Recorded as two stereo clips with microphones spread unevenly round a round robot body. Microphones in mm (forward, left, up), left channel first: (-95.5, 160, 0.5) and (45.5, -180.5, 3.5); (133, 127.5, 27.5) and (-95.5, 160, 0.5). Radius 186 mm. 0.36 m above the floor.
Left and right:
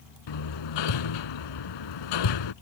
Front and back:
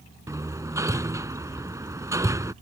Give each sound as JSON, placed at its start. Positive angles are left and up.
{"t": 0.3, "sound": "hammering", "azimuth_deg": 95}